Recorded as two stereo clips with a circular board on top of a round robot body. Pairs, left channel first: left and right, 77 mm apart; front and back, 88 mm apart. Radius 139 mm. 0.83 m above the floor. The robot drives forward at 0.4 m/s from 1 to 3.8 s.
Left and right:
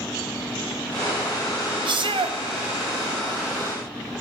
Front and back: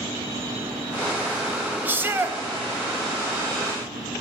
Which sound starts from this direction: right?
A shout, at 1.9 s.